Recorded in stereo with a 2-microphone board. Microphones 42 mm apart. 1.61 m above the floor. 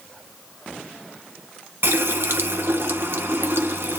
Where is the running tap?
60° right (ahead or behind), 1.4 m.